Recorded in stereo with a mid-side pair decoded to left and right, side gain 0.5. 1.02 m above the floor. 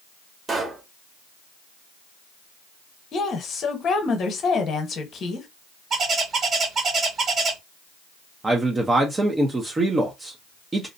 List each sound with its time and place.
0.5 s a pop: 30° right, 1.3 m
3.1 s a woman speaking: 50° left, 1.0 m
5.9 s a bird: 45° right, 1.6 m
8.4 s a man speaking: 25° right, 0.7 m